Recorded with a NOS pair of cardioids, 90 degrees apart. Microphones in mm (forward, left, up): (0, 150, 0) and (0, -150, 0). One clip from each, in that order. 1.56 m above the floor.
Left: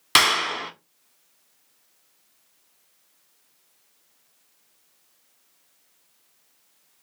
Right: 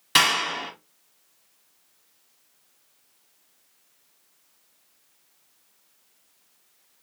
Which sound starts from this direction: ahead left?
A clap, at 0.1 s.